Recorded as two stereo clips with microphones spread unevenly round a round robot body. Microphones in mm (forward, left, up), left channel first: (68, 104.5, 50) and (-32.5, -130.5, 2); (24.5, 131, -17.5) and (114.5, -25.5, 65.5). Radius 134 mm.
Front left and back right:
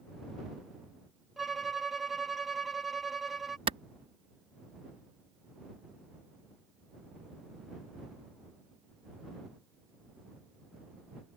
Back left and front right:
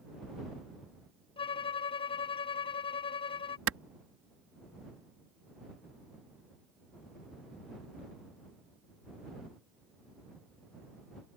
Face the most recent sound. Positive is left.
turn(degrees=-50)